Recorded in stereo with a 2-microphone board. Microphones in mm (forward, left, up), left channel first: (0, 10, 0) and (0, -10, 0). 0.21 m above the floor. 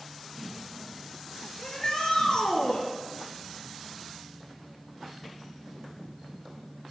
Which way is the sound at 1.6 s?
35° left (ahead or behind).